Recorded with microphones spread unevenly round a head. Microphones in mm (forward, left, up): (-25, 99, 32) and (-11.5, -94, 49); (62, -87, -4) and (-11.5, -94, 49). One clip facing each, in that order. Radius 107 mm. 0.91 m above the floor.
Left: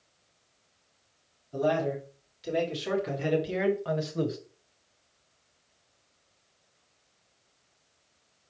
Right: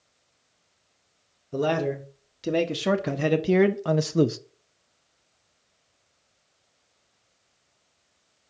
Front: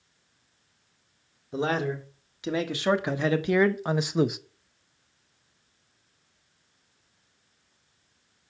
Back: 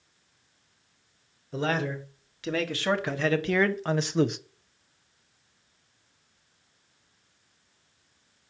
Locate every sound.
1.5 s a man speaking: 55° right, 2 m